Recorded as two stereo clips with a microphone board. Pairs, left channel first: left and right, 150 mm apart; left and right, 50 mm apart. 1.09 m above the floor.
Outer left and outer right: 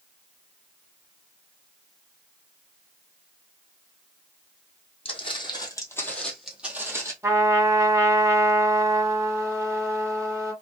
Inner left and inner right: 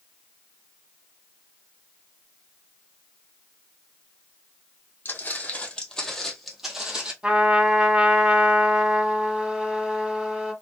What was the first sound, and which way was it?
Footsteps, 40° left (ahead or behind).